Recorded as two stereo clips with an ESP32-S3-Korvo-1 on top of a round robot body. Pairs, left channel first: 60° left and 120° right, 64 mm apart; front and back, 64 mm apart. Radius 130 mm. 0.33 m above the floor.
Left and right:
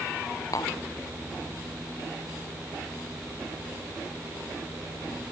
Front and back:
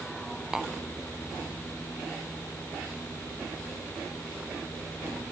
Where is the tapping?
95° left.